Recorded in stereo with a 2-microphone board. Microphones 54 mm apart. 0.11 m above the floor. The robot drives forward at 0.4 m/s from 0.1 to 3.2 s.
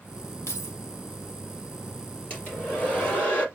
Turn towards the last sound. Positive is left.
turn(degrees=25)  # may be behind; listen again after turning